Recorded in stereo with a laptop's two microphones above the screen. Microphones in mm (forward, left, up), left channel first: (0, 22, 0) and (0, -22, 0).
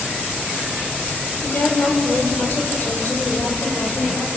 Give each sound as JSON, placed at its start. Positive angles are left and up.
{"t": 1.4, "sound": "a woman speaking", "side_deg": 55, "distance_m": 3.0}